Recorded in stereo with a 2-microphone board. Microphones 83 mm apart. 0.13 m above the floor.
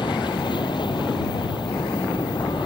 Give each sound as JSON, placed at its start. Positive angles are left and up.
{"t": 0.0, "sound": "an aircraft", "side_deg": 65}